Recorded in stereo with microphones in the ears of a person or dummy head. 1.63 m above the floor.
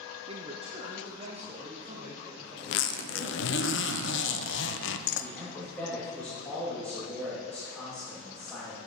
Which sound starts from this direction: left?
A zipper, at 2.6 s.